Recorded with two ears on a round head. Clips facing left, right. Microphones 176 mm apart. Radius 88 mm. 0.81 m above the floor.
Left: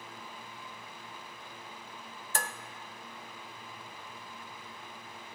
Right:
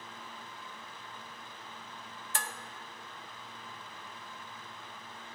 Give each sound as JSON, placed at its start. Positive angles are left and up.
{"t": 2.4, "sound": "dishes clattering", "side_deg": 40, "distance_m": 0.6}